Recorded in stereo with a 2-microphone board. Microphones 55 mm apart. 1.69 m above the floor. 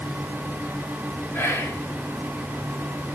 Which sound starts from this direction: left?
Whispering, at 1.3 s.